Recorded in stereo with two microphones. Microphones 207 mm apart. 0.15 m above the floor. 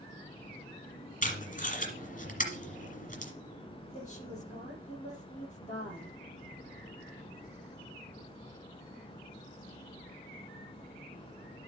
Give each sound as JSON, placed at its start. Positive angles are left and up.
{"t": 1.2, "sound": "tape being pulled", "side_deg": 40, "distance_m": 2.0}
{"t": 3.9, "sound": "a woman speaking", "side_deg": 35, "distance_m": 5.0}